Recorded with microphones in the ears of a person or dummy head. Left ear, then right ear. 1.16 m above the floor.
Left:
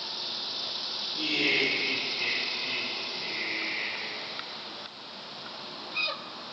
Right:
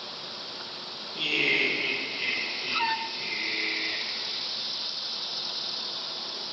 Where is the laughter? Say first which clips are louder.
Right 2 dB; 25° right (ahead or behind), 1.7 m.